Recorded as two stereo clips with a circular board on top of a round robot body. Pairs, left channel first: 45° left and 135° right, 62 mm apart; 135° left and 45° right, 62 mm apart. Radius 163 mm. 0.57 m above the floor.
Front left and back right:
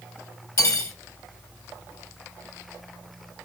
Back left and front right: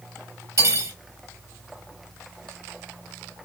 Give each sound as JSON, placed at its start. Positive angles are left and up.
{"t": 0.6, "sound": "cutlery clinking", "azimuth_deg": 0, "distance_m": 1.8}